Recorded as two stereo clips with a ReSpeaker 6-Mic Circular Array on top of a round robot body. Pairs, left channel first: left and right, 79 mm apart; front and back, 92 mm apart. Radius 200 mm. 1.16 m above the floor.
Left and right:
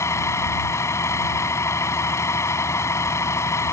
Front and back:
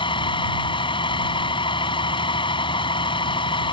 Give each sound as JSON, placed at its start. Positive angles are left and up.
{"t": 0.0, "sound": "a vehicle", "azimuth_deg": 35}